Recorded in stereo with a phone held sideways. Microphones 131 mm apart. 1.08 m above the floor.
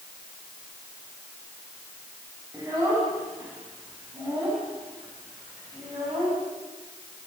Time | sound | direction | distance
2.5 | a child speaking | 25° right (ahead or behind) | 6 m